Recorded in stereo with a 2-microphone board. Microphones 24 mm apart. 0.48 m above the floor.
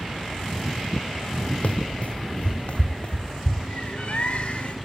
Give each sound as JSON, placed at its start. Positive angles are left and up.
{"t": 1.6, "sound": "running footsteps", "side_deg": 60, "distance_m": 0.8}
{"t": 3.7, "sound": "a bird", "side_deg": 55, "distance_m": 1.6}